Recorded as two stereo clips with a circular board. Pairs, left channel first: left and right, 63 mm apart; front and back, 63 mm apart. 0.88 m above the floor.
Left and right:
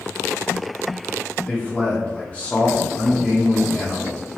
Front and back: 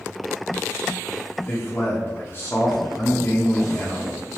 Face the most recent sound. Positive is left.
turn(degrees=35)